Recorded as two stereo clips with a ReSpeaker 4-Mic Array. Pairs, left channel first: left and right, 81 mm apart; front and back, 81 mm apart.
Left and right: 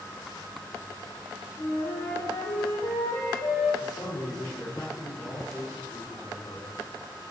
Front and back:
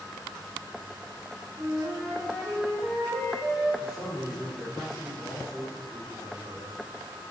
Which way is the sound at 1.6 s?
95° left.